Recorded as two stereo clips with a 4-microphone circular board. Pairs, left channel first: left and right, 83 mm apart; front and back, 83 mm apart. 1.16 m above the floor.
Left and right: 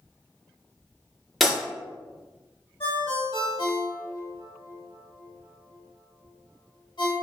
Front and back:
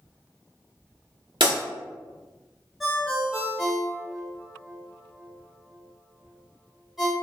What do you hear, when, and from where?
1.4 s breaking glass: straight behind, 1.2 m
2.8 s a ringtone: 90° left, 1.5 m